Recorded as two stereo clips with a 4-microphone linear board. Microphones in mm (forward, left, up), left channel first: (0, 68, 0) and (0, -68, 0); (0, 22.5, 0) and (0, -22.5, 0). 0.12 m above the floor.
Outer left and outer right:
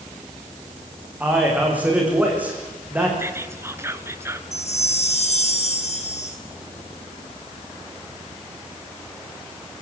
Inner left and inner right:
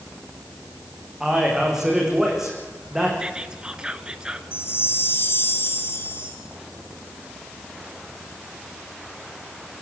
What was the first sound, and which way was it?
A man speaking, 10° right (ahead or behind).